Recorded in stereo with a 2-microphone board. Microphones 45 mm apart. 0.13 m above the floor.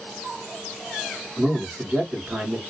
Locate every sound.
1.4 s a man speaking: 25° right (ahead or behind), 1.7 m